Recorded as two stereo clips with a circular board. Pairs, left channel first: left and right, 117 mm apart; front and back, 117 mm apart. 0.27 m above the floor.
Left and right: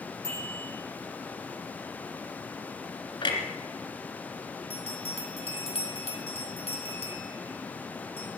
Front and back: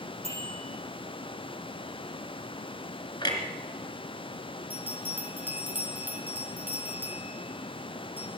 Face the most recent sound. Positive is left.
turn(degrees=110)